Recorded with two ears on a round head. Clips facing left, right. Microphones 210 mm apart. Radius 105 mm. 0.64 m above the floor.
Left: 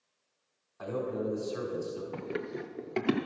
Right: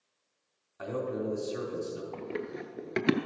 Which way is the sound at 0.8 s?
35° right (ahead or behind).